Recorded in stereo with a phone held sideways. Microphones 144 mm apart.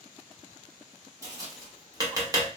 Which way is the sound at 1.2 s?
25° right (ahead or behind).